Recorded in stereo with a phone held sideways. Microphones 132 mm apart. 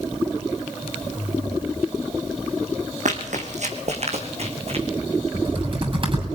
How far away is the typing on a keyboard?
About 7 m.